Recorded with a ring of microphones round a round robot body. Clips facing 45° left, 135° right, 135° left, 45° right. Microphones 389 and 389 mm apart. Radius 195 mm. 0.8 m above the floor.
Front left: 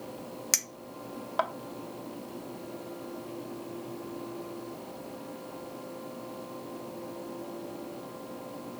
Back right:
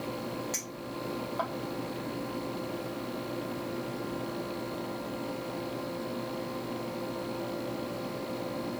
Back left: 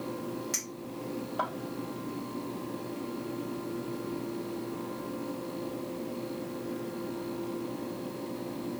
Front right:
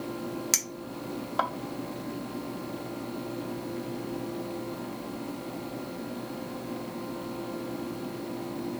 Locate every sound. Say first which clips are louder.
0.5 s a clink: back right 6 dB, front right 1 dB; 15° left, 0.8 m